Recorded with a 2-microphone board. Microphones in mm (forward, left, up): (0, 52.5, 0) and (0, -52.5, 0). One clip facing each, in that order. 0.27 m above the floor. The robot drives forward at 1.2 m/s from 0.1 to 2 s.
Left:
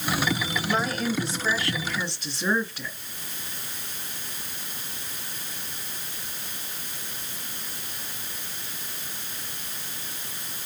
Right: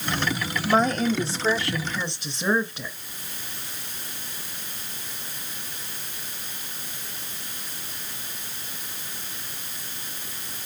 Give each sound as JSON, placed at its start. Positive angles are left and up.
{"t": 0.7, "sound": "a woman speaking", "side_deg": -40, "distance_m": 1.1}